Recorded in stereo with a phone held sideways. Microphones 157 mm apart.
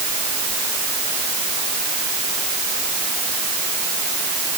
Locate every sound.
Only background noise.